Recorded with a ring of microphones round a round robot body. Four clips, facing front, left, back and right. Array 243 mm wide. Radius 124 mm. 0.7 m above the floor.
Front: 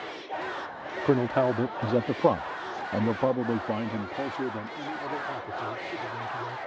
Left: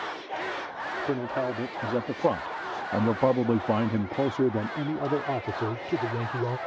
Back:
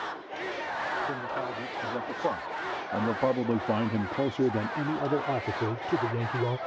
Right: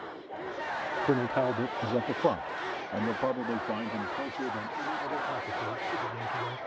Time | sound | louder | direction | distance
1.1 | a man speaking | right 2 dB, front 9 dB | 5° right | ?